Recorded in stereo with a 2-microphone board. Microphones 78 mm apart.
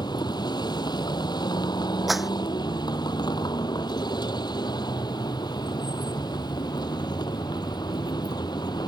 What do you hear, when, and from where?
0.0 s a vehicle: 70° left (ahead or behind)
2.1 s a clap: centre (ahead or behind)